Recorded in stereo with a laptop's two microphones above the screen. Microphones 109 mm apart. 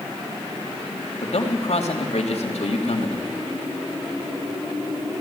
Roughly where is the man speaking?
Left.